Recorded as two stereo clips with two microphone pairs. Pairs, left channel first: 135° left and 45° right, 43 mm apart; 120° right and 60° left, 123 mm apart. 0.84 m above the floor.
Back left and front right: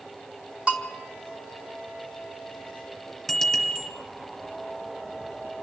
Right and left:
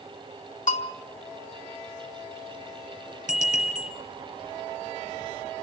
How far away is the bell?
About 4 m.